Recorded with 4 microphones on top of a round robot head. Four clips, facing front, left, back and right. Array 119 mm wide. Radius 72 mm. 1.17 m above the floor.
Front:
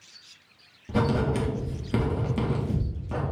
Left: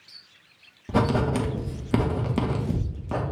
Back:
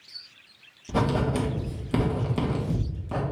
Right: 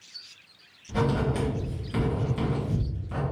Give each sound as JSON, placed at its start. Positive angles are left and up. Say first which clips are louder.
{"t": 0.9, "sound": "writing", "louder": "left 3 dB, even", "azimuth_deg": 95, "distance_m": 0.9}